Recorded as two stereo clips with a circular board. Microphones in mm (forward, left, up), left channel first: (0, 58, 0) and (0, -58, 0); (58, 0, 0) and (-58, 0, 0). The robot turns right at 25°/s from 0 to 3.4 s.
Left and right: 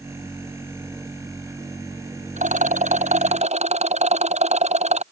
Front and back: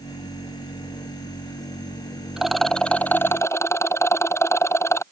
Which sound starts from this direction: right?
A rattle, at 2.4 s.